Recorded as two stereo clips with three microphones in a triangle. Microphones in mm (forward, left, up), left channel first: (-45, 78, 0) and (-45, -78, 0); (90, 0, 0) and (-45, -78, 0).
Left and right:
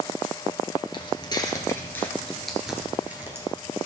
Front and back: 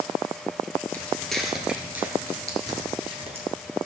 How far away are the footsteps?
About 1.6 m.